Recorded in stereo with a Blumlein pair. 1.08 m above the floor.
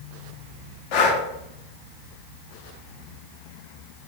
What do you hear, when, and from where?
0.9 s breathing: 45° left, 0.8 m